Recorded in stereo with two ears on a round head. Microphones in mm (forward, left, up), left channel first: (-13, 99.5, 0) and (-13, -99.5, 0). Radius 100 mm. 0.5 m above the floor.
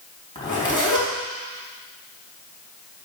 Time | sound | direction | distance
0.3 | a zipper | 20° left (ahead or behind) | 4 m